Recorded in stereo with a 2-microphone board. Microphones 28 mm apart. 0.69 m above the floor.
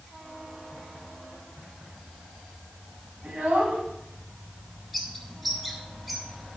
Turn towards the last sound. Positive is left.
turn(degrees=-5)  # may be behind; listen again after turning